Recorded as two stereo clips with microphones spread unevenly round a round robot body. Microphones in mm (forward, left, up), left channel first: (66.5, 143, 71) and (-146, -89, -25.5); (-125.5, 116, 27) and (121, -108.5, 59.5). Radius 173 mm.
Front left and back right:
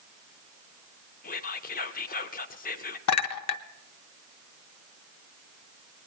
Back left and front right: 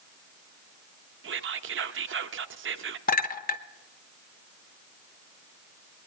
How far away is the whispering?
About 0.8 m.